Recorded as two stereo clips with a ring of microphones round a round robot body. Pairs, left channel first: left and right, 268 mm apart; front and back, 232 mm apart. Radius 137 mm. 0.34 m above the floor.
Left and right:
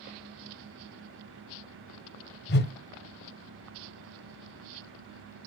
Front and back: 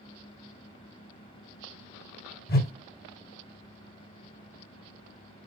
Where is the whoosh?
45° left, 0.7 m.